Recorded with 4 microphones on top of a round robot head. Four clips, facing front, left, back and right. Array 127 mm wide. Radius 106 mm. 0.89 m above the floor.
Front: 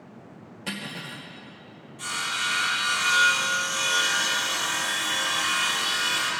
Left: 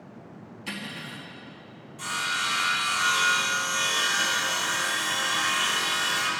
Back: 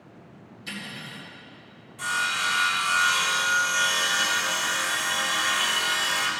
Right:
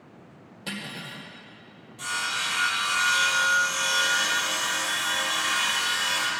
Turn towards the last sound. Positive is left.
turn(degrees=-160)